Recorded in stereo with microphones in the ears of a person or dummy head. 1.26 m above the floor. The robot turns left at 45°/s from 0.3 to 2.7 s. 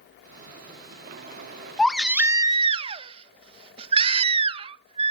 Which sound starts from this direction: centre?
A baby crying, at 1.8 s.